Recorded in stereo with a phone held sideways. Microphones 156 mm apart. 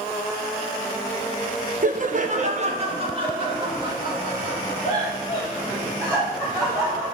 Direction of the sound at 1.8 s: 55° right (ahead or behind).